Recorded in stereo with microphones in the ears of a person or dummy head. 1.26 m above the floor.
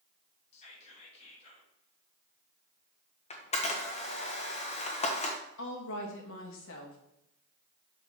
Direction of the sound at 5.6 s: 70° left (ahead or behind).